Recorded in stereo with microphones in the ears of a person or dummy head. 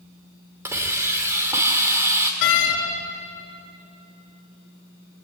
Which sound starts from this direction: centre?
A hiss, at 0.7 s.